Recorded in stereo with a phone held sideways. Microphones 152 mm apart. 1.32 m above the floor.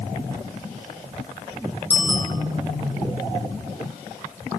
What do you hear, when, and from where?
1.9 s a bicycle bell: 25° left (ahead or behind), 9 m